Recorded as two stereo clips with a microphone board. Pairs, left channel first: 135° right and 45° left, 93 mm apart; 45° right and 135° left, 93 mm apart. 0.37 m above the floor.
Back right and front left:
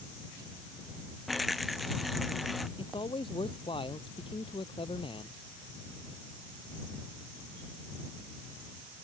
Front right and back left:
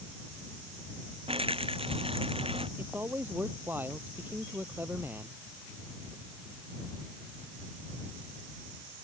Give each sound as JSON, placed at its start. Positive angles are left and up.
{"t": 1.3, "sound": "a rattle", "azimuth_deg": 135}
{"t": 2.8, "sound": "a man speaking", "azimuth_deg": -155}